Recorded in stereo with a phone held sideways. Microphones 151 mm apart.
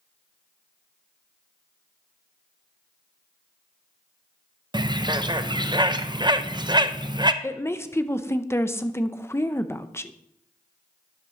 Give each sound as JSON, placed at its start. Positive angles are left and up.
{"t": 4.7, "sound": "a bird", "side_deg": -30, "distance_m": 0.5}
{"t": 7.4, "sound": "a woman speaking", "side_deg": 15, "distance_m": 0.6}